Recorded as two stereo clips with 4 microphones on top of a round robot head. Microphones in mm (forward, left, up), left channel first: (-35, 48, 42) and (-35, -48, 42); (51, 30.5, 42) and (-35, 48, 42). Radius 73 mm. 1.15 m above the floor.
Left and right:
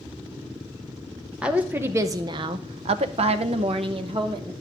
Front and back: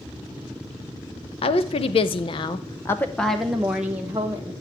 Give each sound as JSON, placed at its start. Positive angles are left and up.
{"t": 1.4, "sound": "a woman speaking", "azimuth_deg": -10, "distance_m": 0.8}